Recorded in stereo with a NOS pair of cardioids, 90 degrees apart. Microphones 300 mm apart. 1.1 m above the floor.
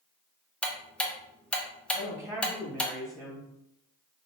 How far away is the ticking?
About 0.6 m.